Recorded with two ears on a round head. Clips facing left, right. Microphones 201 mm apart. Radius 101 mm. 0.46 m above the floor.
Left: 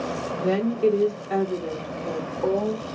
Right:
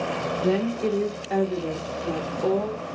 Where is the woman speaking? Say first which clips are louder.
Left 3 dB; 25° left (ahead or behind), 1.3 m; by 2.8 s 25° right (ahead or behind), 1.7 m.